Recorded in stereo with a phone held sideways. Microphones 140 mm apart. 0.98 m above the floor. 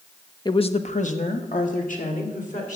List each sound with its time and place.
0.5 s a woman speaking: 35° left (ahead or behind), 0.7 m; by 2.8 s 75° left (ahead or behind), 3 m